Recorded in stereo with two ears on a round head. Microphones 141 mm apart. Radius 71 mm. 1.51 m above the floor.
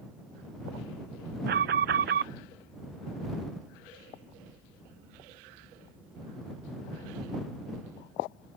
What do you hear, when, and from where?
1.5 s an alarm: 70° right (ahead or behind)